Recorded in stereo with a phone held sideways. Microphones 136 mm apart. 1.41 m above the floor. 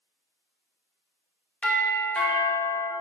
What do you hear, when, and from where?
1.6 s a doorbell: 10° left (ahead or behind), 1.0 m